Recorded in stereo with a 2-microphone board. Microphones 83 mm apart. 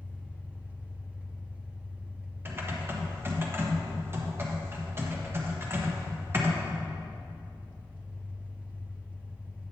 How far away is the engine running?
About 1.0 m.